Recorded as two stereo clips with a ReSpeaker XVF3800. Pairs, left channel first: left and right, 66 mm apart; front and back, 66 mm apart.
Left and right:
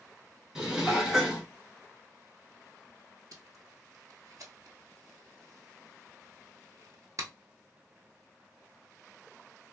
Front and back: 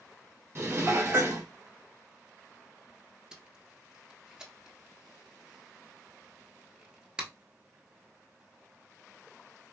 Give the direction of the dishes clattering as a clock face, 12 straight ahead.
6 o'clock.